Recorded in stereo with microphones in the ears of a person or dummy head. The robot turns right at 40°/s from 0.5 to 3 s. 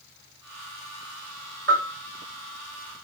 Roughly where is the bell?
Centre.